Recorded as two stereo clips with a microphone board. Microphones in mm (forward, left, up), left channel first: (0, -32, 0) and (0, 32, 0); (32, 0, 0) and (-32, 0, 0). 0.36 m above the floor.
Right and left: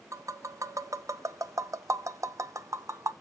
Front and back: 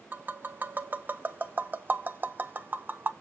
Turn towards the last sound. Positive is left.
turn(degrees=120)